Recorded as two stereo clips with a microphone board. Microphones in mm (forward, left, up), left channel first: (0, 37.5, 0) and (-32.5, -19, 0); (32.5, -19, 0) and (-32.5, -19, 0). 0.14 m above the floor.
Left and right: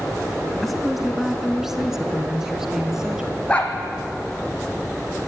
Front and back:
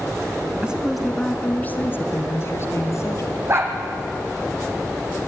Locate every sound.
0.6 s a woman speaking: 150° left, 1.0 m; by 3.4 s 40° right, 2.5 m
3.5 s a dog barking: 130° left, 2.5 m